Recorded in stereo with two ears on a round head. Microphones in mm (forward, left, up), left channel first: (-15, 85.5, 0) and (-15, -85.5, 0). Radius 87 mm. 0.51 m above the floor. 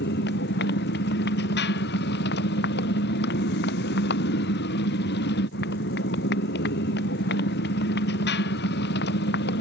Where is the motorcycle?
65° left (ahead or behind).